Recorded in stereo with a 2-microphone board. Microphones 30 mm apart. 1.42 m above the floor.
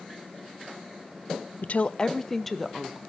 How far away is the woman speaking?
About 0.6 m.